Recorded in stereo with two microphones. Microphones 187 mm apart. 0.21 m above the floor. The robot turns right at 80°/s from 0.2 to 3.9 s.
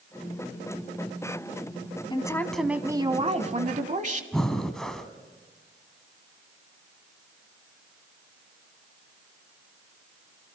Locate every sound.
2.1 s a woman speaking: 140° left, 1.2 m; by 4.2 s 75° right, 1.2 m
4.3 s breathing: 5° left (ahead or behind), 1.1 m